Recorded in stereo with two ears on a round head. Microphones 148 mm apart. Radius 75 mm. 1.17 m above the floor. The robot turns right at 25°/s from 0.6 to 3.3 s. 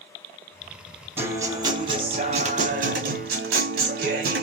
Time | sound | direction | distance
1.2 | a guitar | 165° right | 1.8 m